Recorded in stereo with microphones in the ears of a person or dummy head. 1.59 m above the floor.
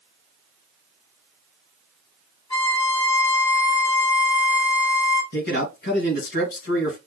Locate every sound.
2.5 s a violin: 20° left (ahead or behind), 2.5 m
5.3 s a man speaking: 55° left (ahead or behind), 2 m